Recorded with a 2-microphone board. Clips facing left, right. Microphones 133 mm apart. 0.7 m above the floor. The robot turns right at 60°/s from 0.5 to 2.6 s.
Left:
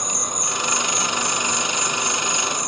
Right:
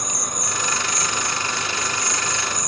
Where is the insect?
25° left, 1.2 m; by 2.7 s 150° left, 1.2 m.